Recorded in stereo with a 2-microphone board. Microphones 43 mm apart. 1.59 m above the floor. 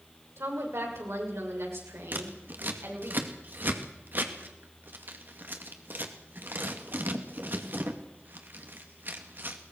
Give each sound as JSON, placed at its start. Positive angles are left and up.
{"t": 0.4, "sound": "a woman speaking", "side_deg": -85, "distance_m": 7.5}
{"t": 2.1, "sound": "scissors", "side_deg": -50, "distance_m": 2.0}